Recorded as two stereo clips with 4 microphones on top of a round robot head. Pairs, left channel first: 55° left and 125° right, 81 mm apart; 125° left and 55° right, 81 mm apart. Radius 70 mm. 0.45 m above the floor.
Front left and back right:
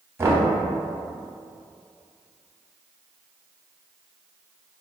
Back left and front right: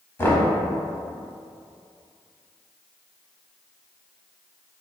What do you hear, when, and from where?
0.2 s knocking: straight behind, 0.9 m